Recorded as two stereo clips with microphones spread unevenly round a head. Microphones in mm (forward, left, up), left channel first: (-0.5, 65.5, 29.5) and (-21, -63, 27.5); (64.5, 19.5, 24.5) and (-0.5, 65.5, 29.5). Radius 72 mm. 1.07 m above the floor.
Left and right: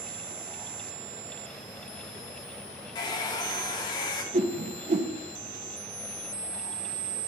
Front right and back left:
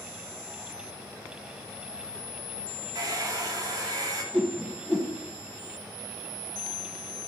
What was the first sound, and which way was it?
A hair dryer, 130° left.